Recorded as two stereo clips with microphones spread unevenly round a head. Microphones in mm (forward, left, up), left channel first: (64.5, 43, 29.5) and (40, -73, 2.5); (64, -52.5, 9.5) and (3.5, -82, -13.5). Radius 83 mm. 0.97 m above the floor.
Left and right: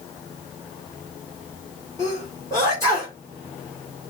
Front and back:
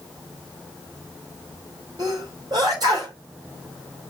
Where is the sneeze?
150° left, 2 m.